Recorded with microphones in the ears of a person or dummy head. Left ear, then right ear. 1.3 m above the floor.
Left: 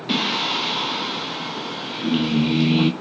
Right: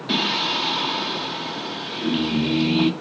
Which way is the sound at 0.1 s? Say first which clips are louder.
Even; centre (ahead or behind).